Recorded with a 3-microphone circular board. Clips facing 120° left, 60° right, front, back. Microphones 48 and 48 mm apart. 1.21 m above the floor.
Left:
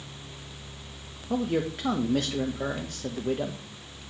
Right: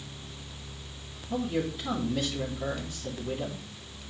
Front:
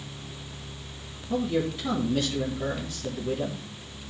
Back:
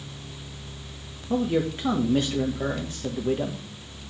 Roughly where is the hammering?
I don't hear hammering.